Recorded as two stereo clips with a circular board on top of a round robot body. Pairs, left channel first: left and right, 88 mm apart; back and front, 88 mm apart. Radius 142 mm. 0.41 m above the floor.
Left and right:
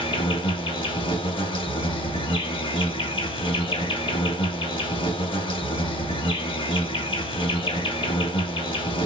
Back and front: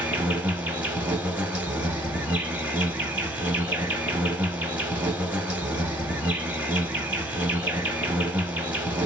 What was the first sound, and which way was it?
An insect, 75° left.